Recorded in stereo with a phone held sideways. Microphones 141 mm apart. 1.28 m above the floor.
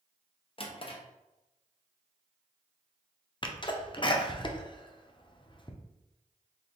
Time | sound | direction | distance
0.6 | a drawer | 40° left (ahead or behind) | 0.7 m
3.4 | a sneeze | 35° left (ahead or behind) | 0.6 m